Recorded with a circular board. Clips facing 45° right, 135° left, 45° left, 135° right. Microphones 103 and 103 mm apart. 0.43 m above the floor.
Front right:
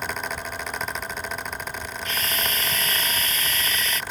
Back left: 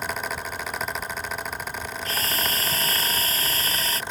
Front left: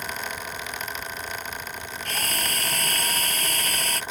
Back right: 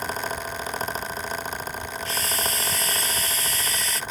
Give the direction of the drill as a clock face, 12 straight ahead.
9 o'clock.